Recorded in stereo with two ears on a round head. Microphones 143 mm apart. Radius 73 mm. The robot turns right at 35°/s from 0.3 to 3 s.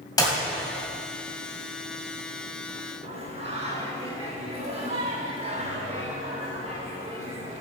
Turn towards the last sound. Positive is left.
turn(degrees=-40)  # may be behind; listen again after turning